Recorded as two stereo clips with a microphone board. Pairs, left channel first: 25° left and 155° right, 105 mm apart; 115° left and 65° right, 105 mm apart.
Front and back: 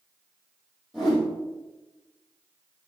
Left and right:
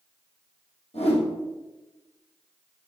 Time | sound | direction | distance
0.9 | a whoosh | 110° left | 3.5 m